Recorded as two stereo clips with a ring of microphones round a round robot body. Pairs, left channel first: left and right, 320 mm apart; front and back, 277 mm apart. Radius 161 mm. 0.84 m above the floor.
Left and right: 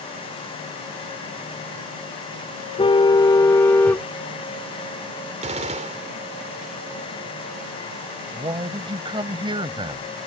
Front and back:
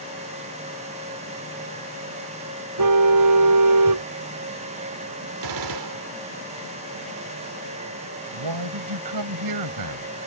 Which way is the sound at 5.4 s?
160° right.